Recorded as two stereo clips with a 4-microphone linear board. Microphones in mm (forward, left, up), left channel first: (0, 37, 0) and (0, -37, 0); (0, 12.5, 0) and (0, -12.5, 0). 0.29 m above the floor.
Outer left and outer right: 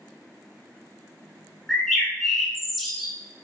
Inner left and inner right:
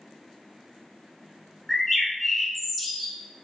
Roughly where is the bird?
Centre.